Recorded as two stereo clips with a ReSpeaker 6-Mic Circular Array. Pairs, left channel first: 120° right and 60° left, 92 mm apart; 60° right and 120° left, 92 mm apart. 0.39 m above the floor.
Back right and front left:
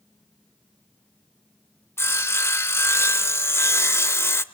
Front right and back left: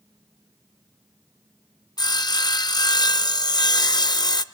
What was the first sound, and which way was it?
Sawing, 70° right.